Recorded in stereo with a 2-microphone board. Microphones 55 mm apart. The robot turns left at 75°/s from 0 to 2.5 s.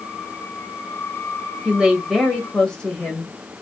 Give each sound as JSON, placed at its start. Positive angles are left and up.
{"t": 1.6, "sound": "a woman speaking", "azimuth_deg": -140, "distance_m": 1.3}